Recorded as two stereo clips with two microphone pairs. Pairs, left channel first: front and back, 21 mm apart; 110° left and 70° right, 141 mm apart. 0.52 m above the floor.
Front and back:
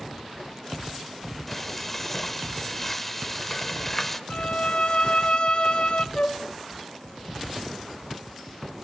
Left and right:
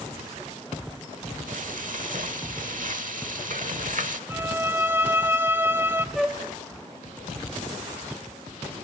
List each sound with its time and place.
1.5 s frying: 75° right, 1.1 m
4.3 s a violin: 5° left, 0.6 m
6.2 s a flute: 20° left, 1.4 m